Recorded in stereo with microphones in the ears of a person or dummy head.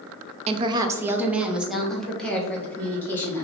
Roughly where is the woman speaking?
Right.